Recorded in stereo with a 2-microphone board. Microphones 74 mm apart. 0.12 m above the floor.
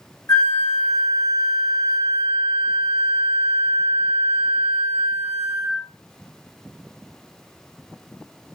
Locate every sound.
0.3 s a flute: 45° left (ahead or behind), 1.1 m